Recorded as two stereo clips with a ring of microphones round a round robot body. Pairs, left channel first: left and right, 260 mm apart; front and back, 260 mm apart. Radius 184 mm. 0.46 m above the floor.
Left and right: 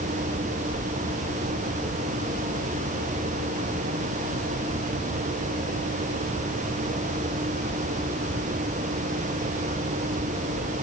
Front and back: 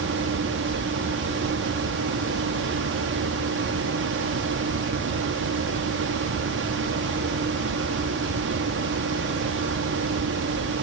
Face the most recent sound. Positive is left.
No sound to turn to.